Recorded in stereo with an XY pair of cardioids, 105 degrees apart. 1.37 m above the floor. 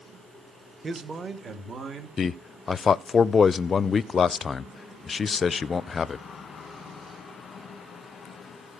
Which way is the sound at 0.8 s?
25° right.